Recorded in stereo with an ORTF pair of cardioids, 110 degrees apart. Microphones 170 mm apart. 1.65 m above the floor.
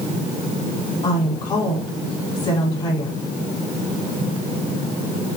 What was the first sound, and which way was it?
A woman speaking, 30° left.